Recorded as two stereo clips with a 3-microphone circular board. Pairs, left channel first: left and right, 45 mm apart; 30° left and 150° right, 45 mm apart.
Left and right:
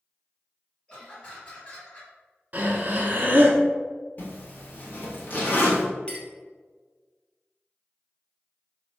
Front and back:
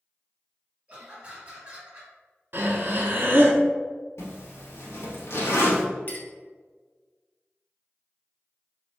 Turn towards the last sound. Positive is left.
turn(degrees=35)